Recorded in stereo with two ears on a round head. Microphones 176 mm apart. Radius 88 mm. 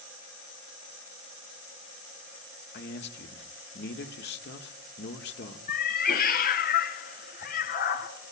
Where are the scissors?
No scissors in this recording.